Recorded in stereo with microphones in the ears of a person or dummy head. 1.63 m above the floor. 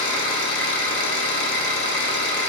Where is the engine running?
75° left (ahead or behind), 0.8 m.